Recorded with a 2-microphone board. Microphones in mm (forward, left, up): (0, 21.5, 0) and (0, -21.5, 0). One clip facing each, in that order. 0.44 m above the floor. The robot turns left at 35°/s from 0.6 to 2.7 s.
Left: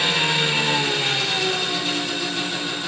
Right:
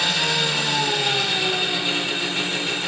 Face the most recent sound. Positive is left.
turn(degrees=-45)